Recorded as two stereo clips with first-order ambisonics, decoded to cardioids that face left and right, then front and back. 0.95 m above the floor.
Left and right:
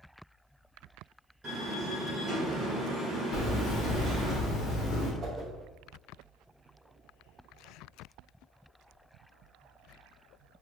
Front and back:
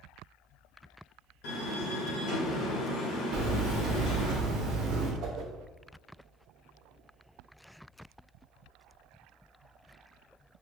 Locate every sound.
1.4 s a door slam: 20° right, 1.1 m
3.3 s hammering: 145° left, 0.7 m
5.2 s a whoosh: 150° right, 0.7 m